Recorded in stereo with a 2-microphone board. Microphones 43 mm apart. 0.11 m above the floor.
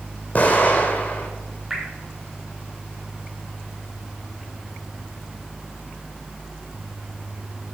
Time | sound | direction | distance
0.3 | an explosion | 35° left (ahead or behind) | 1.7 m
1.7 | dripping | 10° right (ahead or behind) | 3 m